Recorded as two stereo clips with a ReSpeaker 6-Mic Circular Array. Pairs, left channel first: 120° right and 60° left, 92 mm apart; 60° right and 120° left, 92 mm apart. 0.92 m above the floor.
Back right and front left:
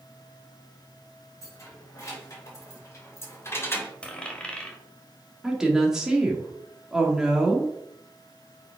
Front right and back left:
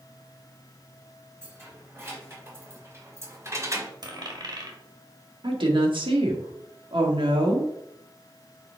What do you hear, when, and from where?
1.4 s keys jangling: 175° right, 3.5 m; by 3.9 s 175° left, 1.2 m
4.0 s a dropped coin: 160° left, 1.7 m
5.4 s a woman speaking: 145° left, 1.9 m